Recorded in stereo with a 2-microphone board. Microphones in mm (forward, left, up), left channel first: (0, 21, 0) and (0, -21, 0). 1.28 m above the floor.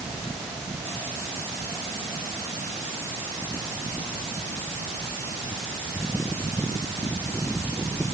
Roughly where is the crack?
I don't hear a crack.